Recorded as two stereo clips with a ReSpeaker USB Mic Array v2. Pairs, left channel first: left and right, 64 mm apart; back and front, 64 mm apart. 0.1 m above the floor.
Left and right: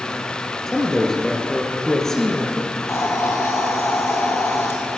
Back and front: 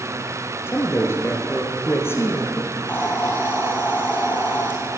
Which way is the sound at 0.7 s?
170° left.